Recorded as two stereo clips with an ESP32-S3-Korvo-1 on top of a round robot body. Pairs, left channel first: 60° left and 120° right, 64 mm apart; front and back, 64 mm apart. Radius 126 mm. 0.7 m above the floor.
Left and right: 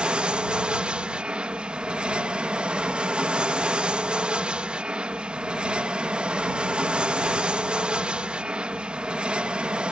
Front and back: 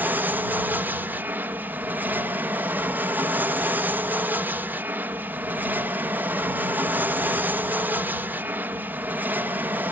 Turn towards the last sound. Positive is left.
turn(degrees=180)